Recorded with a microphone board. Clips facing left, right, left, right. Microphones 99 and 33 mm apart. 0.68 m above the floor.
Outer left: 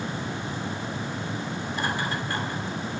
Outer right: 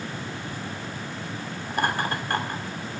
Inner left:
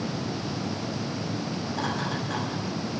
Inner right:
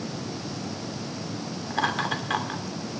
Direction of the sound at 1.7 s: 55° right (ahead or behind).